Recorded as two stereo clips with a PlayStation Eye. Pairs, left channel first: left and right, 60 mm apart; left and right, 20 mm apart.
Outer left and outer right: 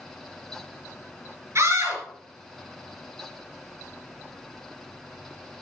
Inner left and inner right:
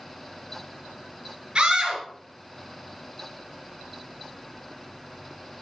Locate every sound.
1.6 s a scream: 50° right (ahead or behind), 3 m